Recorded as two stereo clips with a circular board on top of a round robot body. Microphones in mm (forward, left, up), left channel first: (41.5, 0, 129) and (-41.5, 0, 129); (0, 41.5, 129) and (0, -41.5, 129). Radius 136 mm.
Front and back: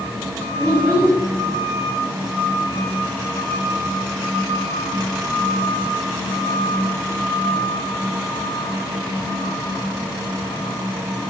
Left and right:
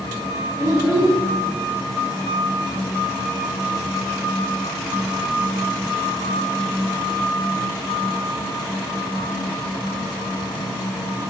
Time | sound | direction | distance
0.6 | a child speaking | 135° right | 2.0 m